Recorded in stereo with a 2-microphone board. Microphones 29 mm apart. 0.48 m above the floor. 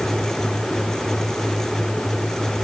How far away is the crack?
I don't hear a crack.